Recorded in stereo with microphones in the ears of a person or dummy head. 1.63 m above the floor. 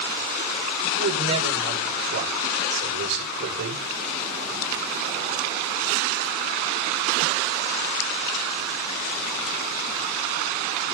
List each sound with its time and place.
1.0 s a man speaking: 65° right (ahead or behind), 8 m